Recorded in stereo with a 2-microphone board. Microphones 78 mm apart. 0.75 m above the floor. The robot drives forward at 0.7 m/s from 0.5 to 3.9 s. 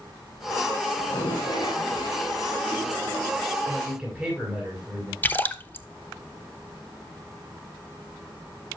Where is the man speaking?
5° right (ahead or behind), 6.5 m.